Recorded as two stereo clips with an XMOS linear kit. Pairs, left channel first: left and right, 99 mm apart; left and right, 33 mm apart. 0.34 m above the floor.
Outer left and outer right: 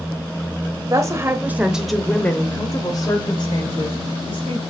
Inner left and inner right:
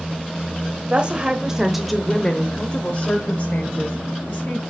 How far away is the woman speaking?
About 1.2 m.